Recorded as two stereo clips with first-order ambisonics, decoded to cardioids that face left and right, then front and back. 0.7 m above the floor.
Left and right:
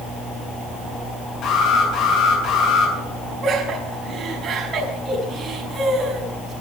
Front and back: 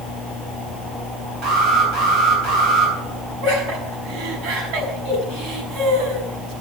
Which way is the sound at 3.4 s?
155° right.